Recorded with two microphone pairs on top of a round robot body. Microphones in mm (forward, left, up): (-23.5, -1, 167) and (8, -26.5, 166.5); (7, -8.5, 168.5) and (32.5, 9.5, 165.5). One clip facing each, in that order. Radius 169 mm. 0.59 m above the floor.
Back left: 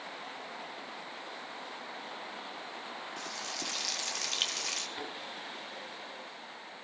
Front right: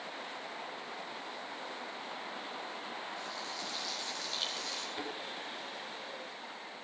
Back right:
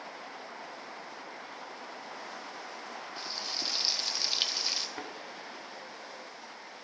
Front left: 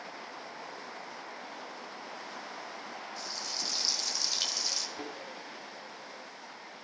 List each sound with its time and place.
3.2 s frying: 155° left, 1.9 m
5.0 s a thud: 130° right, 4 m